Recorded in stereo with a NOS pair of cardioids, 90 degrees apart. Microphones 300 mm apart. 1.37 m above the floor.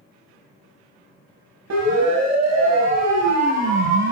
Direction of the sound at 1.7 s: 60° right.